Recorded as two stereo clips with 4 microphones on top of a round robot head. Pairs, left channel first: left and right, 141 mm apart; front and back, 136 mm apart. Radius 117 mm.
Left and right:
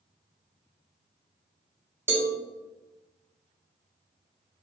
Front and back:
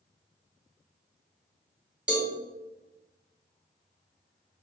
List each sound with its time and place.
2.1 s a cowbell: 120° right, 0.9 m